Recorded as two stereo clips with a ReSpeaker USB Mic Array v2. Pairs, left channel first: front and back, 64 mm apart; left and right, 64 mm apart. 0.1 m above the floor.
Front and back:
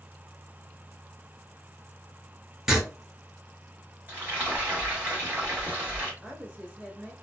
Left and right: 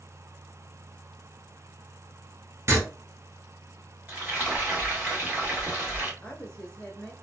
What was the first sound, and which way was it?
Writing, 100° right.